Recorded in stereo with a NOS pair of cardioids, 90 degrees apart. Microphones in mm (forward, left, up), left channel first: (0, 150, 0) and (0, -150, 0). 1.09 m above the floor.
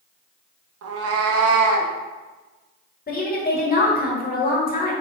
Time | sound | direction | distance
0.8 | a cat meowing | 55° right | 0.7 m
3.1 | a woman speaking | 30° left | 1.6 m